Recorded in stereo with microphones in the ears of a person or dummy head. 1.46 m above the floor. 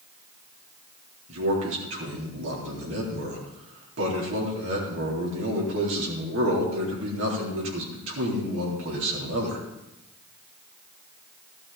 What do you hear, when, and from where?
1.3 s a man speaking: 85° right, 3.5 m